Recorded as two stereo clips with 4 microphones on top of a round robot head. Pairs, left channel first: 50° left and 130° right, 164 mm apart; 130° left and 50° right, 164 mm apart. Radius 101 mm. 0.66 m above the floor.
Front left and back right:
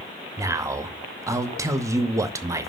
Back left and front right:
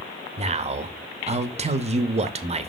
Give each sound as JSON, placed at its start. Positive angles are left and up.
{"t": 0.4, "sound": "a man speaking", "azimuth_deg": -65, "distance_m": 0.8}